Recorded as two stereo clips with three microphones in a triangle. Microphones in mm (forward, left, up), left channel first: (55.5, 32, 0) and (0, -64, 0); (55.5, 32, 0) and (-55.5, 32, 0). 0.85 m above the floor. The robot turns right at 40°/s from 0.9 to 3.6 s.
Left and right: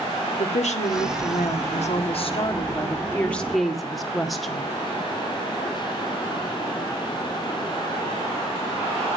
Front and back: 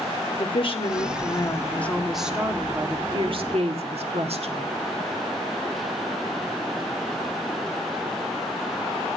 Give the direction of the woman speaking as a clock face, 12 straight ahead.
11 o'clock.